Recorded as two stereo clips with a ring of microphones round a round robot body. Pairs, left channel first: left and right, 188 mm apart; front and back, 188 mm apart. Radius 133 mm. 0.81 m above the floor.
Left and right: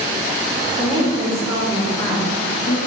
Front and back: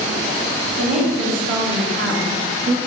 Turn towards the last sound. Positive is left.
turn(degrees=140)